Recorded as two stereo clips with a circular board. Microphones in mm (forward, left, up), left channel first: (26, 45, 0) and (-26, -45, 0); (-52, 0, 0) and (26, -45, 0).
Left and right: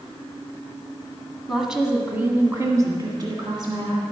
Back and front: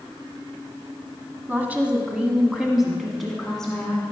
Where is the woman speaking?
30° right, 1.4 m; by 4.0 s 130° right, 2.0 m.